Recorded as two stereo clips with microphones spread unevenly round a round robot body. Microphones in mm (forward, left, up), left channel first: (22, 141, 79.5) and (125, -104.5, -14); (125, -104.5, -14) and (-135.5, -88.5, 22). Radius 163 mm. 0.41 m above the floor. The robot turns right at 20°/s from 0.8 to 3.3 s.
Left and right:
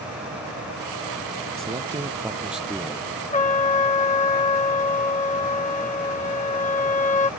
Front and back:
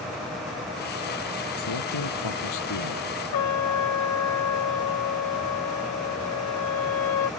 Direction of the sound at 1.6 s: Straight ahead.